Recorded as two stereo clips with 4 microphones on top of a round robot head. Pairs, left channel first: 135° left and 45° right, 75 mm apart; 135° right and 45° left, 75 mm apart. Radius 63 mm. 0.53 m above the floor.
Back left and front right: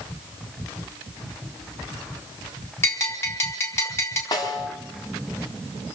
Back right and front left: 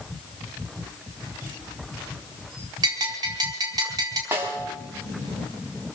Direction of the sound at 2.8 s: 80° left.